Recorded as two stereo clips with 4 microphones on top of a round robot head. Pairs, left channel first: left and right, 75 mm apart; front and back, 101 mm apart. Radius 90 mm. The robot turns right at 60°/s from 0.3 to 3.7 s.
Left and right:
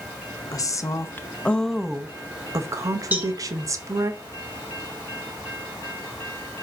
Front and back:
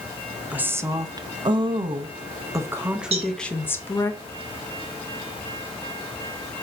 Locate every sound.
0.5 s a woman speaking: 105° left, 0.8 m; by 4.1 s 65° right, 0.8 m
3.1 s a cowbell: 160° right, 3 m; by 3.3 s 150° right, 3 m